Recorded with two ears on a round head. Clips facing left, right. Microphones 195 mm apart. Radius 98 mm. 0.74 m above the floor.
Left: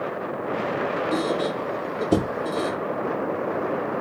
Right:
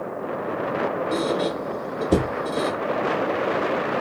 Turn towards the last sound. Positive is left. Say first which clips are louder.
# even
turn(degrees=5)  # may be behind; listen again after turning